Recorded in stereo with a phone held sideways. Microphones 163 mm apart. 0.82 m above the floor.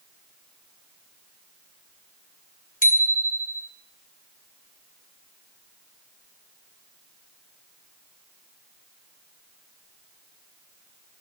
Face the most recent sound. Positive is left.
turn(degrees=60)  # may be behind; listen again after turning